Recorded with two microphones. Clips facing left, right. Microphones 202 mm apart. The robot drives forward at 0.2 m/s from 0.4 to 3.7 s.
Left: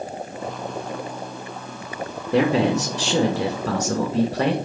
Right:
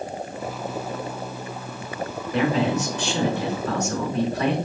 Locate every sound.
2.3 s a man speaking: 80° left, 2.5 m; by 4.5 s 85° left, 2.5 m